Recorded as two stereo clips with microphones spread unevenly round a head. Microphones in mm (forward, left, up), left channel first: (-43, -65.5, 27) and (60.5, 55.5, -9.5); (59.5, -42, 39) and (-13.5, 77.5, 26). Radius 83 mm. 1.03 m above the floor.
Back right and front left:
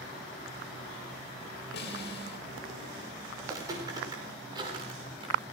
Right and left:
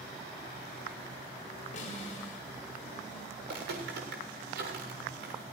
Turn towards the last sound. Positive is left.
turn(degrees=110)